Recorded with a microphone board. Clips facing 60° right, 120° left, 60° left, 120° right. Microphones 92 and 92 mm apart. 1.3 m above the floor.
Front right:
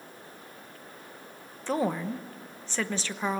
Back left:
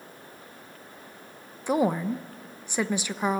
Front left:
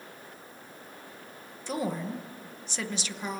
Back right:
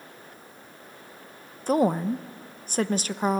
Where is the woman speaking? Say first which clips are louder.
Back left 4 dB, back right 9 dB; 165° right, 0.8 m.